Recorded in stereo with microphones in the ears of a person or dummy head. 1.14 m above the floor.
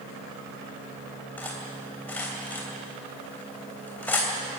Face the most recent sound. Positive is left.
turn(degrees=10)  # may be behind; listen again after turning